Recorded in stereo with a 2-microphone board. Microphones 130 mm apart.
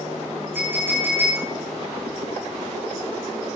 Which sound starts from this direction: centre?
A clink, at 0.6 s.